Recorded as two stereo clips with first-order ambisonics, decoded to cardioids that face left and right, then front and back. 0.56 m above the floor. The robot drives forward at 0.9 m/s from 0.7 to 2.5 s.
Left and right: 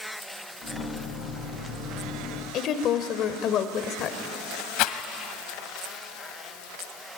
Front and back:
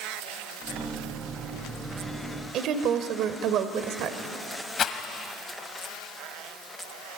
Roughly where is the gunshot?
No gunshot in this recording.